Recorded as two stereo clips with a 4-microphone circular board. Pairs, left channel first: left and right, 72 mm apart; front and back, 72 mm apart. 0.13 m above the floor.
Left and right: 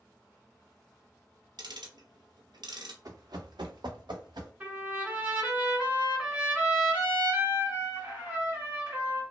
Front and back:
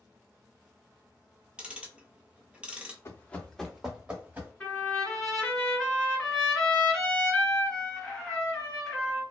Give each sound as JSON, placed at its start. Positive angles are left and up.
{"t": 1.6, "sound": "ticking", "azimuth_deg": -105, "distance_m": 0.6}
{"t": 3.0, "sound": "running footsteps", "azimuth_deg": -50, "distance_m": 0.7}
{"t": 4.6, "sound": "a trumpet", "azimuth_deg": -55, "distance_m": 1.8}